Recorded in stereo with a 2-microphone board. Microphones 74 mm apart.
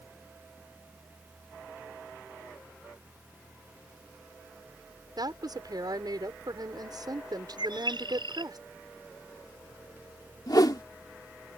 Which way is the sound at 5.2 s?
65° right (ahead or behind).